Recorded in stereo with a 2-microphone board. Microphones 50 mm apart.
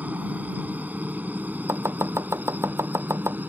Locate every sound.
0.0 s a helicopter: 35° right (ahead or behind)
1.7 s chopping: 65° right (ahead or behind)